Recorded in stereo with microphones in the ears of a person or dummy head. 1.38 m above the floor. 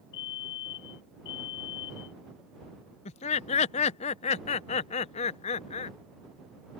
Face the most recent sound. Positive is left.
turn(degrees=35)  # may be behind; listen again after turning